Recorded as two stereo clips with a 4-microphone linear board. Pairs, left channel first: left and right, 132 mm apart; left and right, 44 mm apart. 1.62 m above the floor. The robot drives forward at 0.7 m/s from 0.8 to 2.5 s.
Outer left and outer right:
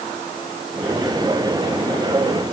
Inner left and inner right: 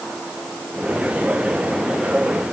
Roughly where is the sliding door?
I don't hear a sliding door.